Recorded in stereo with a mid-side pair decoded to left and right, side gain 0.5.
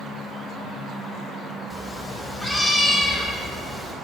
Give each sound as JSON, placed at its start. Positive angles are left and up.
{"t": 1.7, "sound": "a cat meowing", "azimuth_deg": 20, "distance_m": 2.0}